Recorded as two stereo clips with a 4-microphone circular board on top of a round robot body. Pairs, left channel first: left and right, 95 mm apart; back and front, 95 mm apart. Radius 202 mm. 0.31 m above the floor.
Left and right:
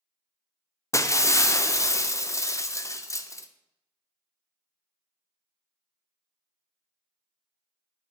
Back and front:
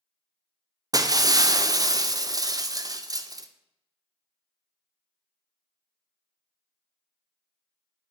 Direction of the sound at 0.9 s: 40° left.